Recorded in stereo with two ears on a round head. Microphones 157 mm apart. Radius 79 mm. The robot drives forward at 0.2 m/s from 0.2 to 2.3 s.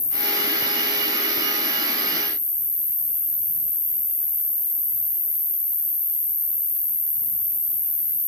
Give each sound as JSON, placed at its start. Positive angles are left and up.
{"t": 0.0, "sound": "an insect", "side_deg": 15, "distance_m": 1.7}